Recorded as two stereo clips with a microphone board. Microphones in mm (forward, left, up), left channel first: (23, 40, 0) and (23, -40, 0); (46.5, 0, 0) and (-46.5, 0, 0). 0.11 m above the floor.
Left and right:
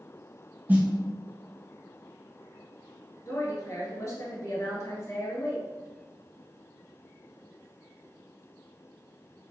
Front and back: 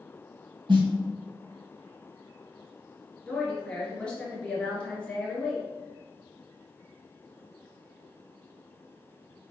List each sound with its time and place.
0.7 s a snare drum: 160° right, 1.6 m
3.3 s a woman speaking: 75° left, 1.5 m